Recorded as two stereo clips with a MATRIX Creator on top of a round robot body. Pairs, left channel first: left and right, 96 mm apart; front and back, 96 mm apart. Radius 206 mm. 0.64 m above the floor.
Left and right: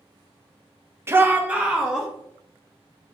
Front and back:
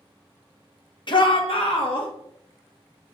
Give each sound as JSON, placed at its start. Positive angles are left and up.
{"t": 1.1, "sound": "a shout", "azimuth_deg": -25, "distance_m": 1.4}